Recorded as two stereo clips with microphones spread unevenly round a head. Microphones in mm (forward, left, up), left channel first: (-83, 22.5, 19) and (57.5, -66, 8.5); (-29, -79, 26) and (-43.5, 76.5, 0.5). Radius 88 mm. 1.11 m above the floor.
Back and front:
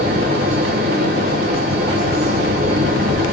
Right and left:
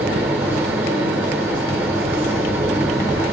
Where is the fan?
15° left, 0.8 m.